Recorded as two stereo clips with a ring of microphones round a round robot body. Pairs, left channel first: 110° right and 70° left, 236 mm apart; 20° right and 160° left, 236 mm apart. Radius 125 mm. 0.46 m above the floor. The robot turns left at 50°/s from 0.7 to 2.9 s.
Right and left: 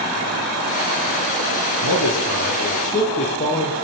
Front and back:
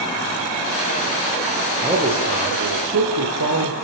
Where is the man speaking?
120° right, 9 m; by 3.7 s 175° right, 9 m.